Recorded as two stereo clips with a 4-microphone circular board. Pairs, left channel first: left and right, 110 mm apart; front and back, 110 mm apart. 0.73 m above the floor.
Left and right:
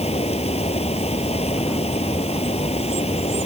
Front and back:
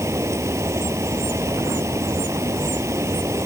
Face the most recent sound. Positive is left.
turn(degrees=115)